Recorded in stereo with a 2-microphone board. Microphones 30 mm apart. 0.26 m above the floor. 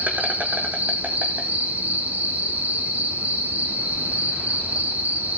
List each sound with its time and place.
0.0 s an insect: 70° right (ahead or behind), 2 m